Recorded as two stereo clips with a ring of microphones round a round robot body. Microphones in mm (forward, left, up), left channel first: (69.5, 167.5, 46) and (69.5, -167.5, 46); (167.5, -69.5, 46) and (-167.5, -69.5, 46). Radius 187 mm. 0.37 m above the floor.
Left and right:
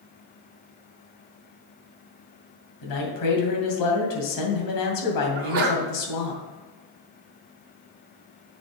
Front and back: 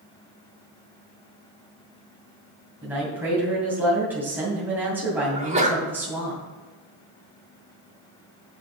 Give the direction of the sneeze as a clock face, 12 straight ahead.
4 o'clock.